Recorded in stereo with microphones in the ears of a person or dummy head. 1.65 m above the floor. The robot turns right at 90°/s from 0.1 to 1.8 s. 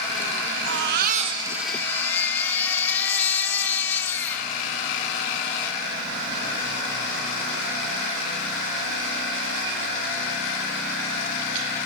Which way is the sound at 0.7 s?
90° right.